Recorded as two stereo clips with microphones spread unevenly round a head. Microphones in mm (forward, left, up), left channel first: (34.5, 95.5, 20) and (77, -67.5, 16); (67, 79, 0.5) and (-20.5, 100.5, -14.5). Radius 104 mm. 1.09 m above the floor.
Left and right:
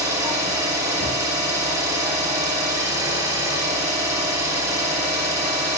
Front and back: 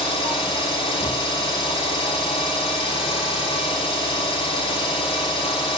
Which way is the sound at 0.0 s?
5° right.